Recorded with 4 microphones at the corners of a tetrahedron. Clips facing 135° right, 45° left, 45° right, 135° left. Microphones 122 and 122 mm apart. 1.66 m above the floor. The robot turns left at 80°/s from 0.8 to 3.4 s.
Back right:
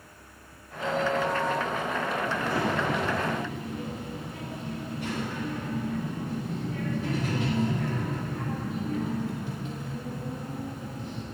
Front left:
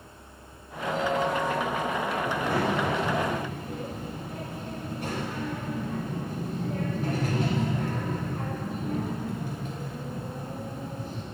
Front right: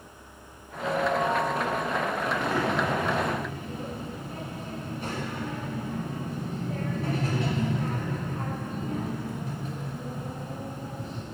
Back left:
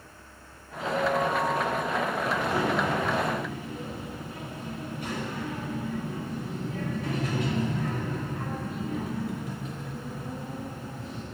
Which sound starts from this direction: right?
A ringtone, at 0.8 s.